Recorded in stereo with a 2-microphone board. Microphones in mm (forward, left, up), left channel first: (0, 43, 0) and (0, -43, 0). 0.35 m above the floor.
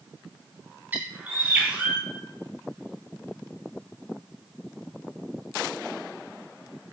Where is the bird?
20° right (ahead or behind), 2.5 m.